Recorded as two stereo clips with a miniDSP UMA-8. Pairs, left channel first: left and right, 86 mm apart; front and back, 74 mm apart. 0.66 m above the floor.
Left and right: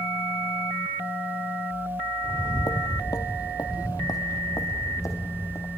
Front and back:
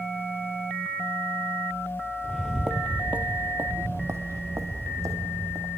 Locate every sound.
2.2 s footsteps: 80° left, 0.8 m; by 5.7 s 140° left, 2.5 m